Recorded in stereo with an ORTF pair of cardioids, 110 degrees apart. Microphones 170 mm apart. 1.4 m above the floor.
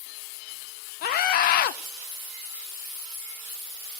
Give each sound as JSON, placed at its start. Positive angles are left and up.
{"t": 1.0, "sound": "a scream", "azimuth_deg": 65, "distance_m": 0.8}